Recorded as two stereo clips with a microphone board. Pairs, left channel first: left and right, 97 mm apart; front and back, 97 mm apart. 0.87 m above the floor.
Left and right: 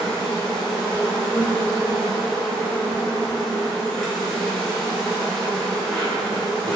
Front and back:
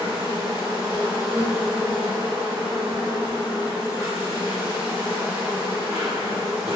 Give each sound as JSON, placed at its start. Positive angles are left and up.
{"t": 0.0, "sound": "an insect", "azimuth_deg": 160, "distance_m": 1.1}